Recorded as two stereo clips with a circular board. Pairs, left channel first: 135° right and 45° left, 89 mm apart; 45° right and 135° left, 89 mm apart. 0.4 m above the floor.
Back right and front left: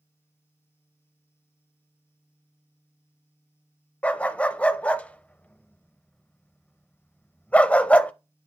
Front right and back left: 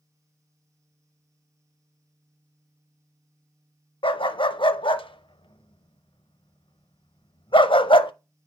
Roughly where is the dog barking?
Ahead right.